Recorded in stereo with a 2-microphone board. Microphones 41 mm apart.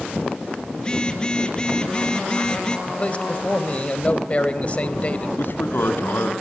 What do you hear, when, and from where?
0.8 s a phone buzzing: 20° left (ahead or behind), 1.6 m
2.9 s a man speaking: 30° left (ahead or behind), 2 m
5.4 s a man speaking: 60° left (ahead or behind), 2.5 m